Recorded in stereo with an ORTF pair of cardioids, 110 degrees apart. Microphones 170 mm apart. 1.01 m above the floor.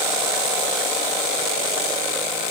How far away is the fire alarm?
No fire alarm in this recording.